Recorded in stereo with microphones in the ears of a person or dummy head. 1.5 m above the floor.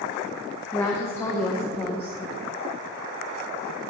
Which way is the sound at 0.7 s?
10° left (ahead or behind).